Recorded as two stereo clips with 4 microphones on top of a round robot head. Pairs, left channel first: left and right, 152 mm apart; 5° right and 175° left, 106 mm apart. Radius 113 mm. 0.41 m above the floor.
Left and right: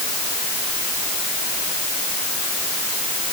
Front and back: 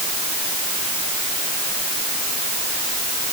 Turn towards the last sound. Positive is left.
No sound to turn to.